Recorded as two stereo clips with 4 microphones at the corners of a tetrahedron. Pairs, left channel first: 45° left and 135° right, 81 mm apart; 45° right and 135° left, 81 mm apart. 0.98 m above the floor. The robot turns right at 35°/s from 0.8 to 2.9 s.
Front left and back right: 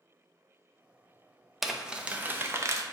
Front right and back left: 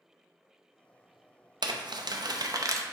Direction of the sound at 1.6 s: 135° left.